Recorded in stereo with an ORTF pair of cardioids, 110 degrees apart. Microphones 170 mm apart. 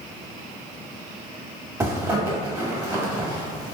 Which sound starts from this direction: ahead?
A zipper, at 1.8 s.